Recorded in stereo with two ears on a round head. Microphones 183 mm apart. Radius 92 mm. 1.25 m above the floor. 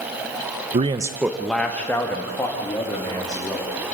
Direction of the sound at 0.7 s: 30° right (ahead or behind).